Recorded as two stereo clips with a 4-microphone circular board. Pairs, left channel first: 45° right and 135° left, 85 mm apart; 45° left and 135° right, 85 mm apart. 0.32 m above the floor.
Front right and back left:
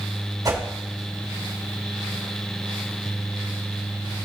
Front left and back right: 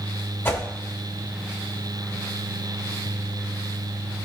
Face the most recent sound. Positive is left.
turn(degrees=105)